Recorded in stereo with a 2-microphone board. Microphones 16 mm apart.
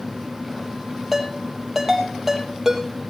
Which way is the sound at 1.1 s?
20° right (ahead or behind).